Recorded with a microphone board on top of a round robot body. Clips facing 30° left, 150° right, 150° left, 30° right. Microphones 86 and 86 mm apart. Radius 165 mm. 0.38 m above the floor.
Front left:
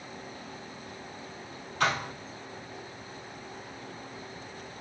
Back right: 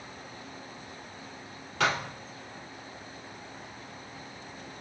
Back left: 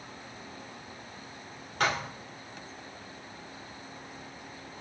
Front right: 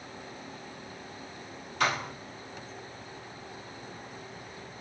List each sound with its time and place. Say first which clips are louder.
1.8 s a thud: even, even; 160° right, 1.9 m